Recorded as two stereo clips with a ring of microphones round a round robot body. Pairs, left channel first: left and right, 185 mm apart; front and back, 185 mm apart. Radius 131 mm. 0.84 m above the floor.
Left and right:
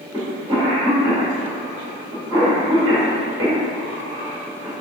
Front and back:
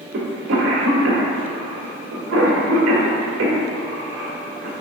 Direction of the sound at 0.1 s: 165° right.